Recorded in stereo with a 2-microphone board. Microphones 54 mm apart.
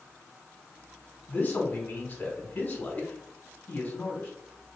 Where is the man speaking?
30° left (ahead or behind), 1.6 m.